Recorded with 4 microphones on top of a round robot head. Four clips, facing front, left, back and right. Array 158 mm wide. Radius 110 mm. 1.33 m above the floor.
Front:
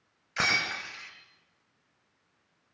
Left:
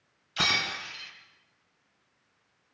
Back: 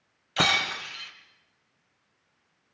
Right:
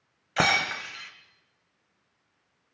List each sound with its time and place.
0.4 s breaking glass: 110° right, 2.5 m